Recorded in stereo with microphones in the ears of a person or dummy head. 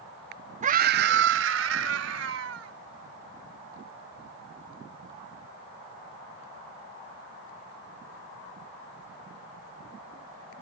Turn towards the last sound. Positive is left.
turn(degrees=-80)